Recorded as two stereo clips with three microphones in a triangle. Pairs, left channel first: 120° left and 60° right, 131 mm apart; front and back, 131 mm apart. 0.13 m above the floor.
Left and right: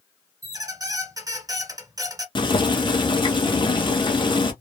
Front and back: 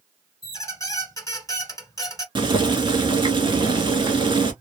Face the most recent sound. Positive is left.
turn(degrees=150)